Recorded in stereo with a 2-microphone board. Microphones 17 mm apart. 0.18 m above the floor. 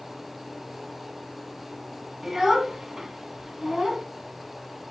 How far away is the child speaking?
About 0.8 m.